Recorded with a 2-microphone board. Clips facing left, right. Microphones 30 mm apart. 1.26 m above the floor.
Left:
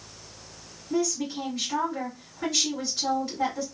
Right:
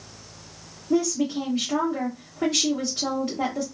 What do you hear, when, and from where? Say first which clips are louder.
0.9 s a woman speaking: right 5 dB; 70° right (ahead or behind), 1.2 m